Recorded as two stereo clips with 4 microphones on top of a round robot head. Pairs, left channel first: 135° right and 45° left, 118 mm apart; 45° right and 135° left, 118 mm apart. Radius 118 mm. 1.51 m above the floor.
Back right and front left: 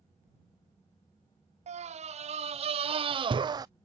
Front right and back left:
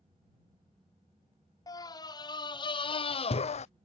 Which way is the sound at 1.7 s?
15° left.